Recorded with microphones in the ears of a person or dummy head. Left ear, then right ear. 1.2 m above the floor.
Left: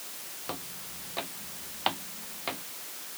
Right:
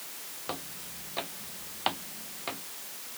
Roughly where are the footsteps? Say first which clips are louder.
Right 1 dB; centre.